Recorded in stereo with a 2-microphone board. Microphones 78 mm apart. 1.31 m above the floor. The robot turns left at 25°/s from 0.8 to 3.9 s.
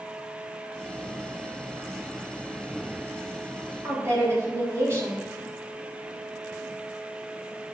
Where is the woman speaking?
40° right (ahead or behind), 3.5 m.